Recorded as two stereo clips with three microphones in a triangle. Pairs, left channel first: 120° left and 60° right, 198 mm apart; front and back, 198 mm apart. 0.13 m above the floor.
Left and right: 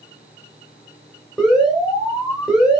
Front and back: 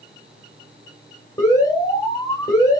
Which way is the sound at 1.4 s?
25° left.